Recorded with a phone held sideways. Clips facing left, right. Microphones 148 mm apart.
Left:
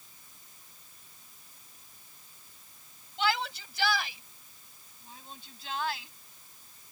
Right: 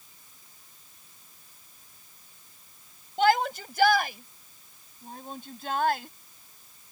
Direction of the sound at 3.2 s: 55° right (ahead or behind).